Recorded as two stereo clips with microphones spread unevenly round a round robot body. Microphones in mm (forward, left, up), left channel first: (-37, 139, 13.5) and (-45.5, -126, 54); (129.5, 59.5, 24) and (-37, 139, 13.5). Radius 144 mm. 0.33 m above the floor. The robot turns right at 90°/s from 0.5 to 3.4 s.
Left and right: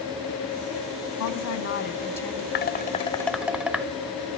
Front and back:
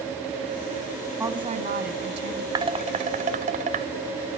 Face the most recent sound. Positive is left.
turn(degrees=175)